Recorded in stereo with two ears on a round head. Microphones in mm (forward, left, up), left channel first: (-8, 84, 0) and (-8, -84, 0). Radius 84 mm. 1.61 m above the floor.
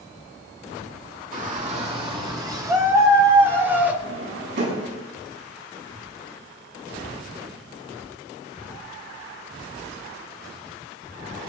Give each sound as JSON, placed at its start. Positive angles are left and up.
{"t": 1.3, "sound": "a shout", "side_deg": -45, "distance_m": 2.0}
{"t": 4.0, "sound": "a drawer", "side_deg": -75, "distance_m": 5.5}